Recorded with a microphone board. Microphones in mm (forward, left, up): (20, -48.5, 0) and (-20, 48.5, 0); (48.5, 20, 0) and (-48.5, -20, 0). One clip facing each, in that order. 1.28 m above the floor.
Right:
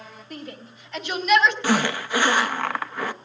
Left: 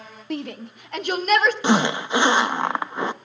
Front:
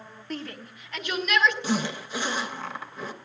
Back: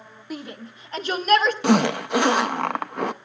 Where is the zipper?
Straight behind, 0.5 m.